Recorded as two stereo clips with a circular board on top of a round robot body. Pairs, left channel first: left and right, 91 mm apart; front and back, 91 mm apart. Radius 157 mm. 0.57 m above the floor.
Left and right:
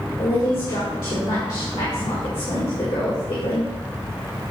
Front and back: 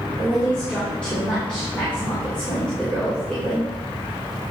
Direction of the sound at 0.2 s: 75° left.